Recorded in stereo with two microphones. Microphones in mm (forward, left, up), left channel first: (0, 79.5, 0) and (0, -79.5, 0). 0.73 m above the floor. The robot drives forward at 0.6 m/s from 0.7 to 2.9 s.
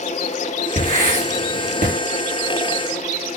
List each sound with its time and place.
0.8 s writing: 55° right (ahead or behind), 6.5 m; by 1.9 s 50° right (ahead or behind), 7 m